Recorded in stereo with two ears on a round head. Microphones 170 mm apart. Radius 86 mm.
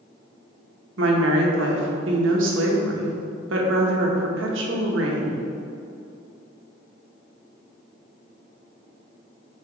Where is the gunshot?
I don't hear a gunshot.